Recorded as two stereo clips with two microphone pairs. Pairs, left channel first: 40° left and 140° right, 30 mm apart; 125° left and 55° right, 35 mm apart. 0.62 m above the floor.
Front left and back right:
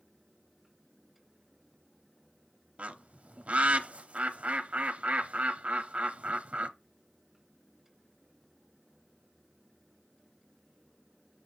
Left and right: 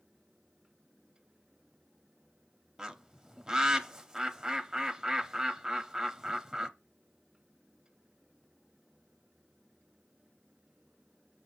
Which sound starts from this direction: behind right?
A bird, at 2.8 s.